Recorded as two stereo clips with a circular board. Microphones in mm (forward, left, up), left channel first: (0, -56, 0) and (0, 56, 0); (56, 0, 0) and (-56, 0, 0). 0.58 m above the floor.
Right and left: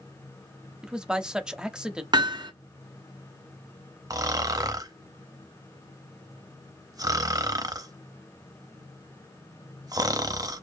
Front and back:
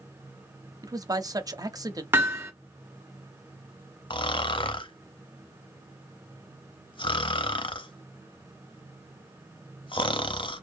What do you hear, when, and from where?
0.8 s a man speaking: 170° left, 0.7 m
2.1 s hammering: 115° left, 1.2 m
4.1 s snoring: 35° left, 0.6 m